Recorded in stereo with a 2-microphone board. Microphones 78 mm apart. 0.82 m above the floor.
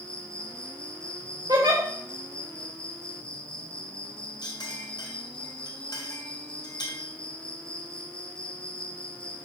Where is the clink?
55° left (ahead or behind), 3.5 m.